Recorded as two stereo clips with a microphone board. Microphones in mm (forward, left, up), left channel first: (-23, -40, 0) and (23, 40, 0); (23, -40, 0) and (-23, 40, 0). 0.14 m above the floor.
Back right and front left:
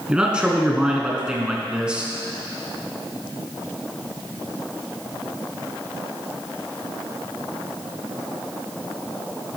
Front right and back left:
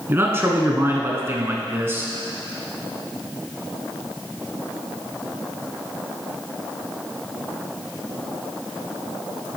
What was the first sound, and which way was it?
A man speaking, 125° left.